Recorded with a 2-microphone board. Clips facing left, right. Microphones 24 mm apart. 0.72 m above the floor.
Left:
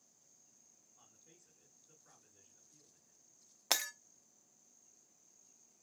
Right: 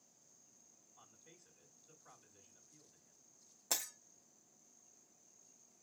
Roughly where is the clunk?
I don't hear a clunk.